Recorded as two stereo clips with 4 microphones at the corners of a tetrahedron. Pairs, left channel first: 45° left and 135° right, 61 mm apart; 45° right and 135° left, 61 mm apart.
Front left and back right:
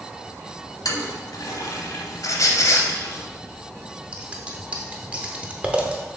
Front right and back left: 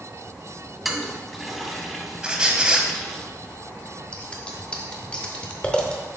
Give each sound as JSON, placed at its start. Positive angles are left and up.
{"t": 0.8, "sound": "a toilet flushing", "azimuth_deg": 45, "distance_m": 0.8}
{"t": 2.2, "sound": "a squeak", "azimuth_deg": 60, "distance_m": 0.9}
{"t": 4.1, "sound": "scissors", "azimuth_deg": -90, "distance_m": 0.8}